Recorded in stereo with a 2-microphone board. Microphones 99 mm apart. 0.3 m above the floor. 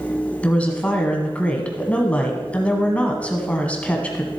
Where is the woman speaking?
15° left (ahead or behind), 1.9 m.